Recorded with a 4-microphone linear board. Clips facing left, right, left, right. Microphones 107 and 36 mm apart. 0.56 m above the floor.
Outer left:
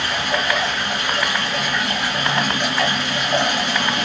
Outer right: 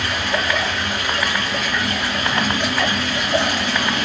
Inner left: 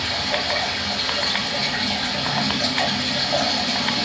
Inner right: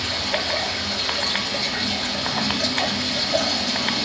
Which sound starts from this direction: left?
Running water, at 0.0 s.